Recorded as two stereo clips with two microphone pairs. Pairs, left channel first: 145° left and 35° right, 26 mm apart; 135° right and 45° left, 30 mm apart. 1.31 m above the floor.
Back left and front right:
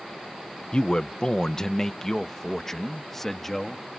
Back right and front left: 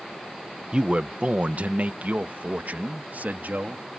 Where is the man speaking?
100° left; by 3.9 s 70° left.